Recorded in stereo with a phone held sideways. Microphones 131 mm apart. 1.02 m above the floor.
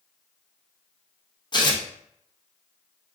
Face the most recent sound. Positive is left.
turn(degrees=35)  # may be behind; listen again after turning